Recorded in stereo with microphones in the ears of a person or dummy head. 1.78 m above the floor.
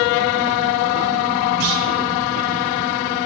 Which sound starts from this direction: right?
A clunk, at 1.6 s.